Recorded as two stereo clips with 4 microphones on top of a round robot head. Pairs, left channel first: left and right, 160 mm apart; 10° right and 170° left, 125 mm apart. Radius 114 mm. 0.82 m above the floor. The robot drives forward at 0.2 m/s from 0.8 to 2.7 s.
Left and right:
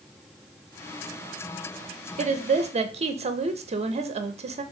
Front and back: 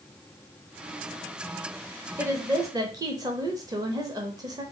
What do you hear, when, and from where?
2.2 s a woman speaking: 125° right, 0.6 m; by 4.6 s 135° right, 0.6 m